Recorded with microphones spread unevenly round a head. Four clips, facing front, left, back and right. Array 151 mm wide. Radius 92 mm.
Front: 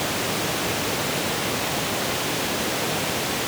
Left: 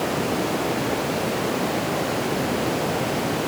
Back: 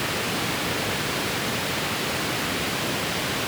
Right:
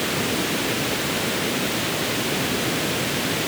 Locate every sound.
Only background noise.